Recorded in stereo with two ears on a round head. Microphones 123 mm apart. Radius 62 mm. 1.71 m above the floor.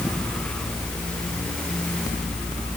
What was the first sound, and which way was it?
Only background noise.